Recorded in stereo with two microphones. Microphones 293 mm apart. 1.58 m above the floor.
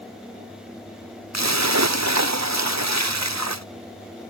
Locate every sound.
1.3 s a splash: 75° right (ahead or behind)